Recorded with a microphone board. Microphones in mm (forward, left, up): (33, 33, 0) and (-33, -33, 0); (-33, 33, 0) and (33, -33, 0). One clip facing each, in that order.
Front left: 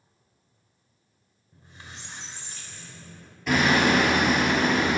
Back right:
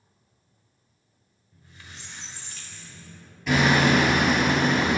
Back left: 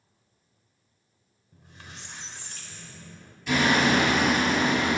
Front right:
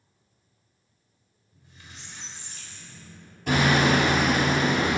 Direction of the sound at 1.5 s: 110° left.